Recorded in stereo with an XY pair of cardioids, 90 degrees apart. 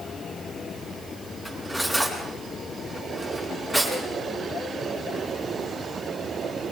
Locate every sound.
1.4 s cutlery clinking: 10° left, 8 m